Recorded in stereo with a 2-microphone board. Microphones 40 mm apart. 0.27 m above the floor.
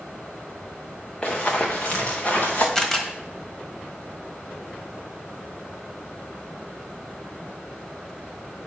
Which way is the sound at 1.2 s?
25° left (ahead or behind).